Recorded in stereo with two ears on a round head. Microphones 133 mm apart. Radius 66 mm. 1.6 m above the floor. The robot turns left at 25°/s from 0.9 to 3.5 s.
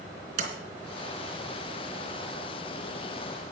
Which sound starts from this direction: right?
A sliding door, at 0.4 s.